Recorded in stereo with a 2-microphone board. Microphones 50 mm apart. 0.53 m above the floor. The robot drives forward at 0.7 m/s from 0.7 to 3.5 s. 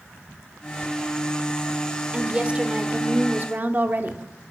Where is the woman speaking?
25° right (ahead or behind), 1.7 m; by 4.2 s 35° right (ahead or behind), 1.1 m.